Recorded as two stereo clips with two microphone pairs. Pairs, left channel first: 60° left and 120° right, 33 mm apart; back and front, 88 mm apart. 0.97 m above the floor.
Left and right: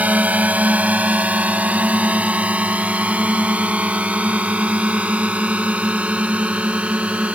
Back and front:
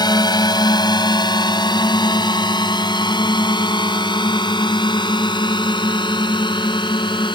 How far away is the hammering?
No hammering in this recording.